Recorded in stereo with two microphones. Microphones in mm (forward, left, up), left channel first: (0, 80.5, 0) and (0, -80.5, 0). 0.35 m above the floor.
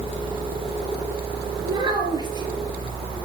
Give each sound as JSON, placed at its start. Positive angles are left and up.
{"t": 1.6, "sound": "a child speaking", "side_deg": -25, "distance_m": 4.0}